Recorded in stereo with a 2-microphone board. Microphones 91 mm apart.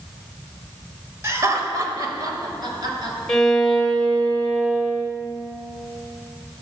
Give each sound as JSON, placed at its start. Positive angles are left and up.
{"t": 1.2, "sound": "laughter", "side_deg": -30, "distance_m": 1.3}
{"t": 3.3, "sound": "a violin", "side_deg": 5, "distance_m": 1.4}